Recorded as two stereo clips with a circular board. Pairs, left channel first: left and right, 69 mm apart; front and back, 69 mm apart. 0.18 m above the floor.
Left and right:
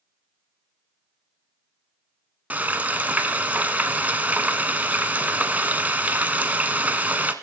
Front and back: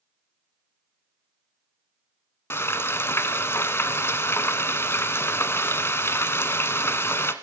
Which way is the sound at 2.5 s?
35° right.